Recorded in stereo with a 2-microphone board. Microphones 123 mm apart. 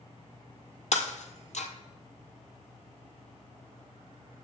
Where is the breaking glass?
65° left (ahead or behind), 1.5 m.